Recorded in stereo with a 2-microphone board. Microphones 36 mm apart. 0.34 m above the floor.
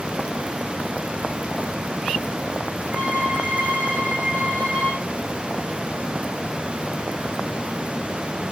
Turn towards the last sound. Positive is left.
turn(degrees=-60)  # may be behind; listen again after turning